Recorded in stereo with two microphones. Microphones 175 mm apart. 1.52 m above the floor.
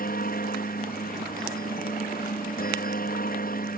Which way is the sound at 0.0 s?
65° left (ahead or behind).